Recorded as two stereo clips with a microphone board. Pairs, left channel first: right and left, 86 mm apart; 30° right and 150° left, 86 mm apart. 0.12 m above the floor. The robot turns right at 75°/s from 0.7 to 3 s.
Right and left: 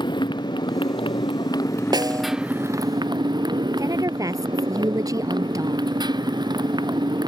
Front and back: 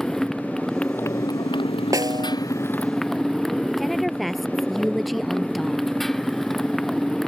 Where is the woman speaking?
60° left.